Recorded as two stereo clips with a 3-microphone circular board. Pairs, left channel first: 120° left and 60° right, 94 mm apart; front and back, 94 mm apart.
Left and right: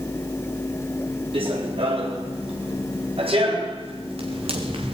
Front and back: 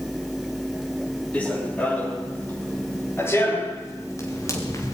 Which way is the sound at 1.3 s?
75° right.